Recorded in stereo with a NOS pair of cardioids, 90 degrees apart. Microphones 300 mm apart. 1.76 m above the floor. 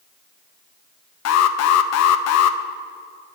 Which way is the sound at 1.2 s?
60° left.